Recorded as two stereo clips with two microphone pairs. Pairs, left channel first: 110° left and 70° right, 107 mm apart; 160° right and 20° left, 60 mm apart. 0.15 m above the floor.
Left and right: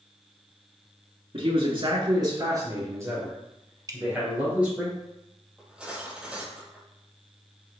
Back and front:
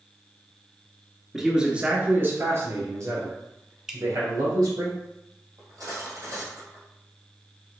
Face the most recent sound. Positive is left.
turn(degrees=10)